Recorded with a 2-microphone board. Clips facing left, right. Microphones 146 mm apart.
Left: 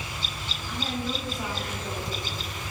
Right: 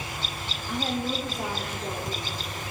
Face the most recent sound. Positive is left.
turn(degrees=-30)  # may be behind; listen again after turning